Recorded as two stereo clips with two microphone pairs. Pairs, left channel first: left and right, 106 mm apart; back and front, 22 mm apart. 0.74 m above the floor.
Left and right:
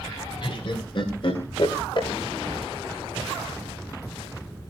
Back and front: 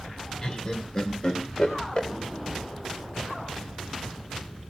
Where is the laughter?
125° left, 2.5 m.